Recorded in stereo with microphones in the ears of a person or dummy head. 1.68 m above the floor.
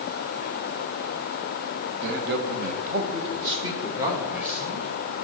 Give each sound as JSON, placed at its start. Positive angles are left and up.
{"t": 2.0, "sound": "a man speaking", "side_deg": -70, "distance_m": 1.5}